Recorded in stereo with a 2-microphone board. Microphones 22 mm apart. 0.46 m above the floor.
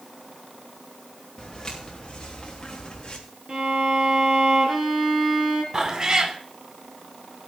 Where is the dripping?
No dripping in this recording.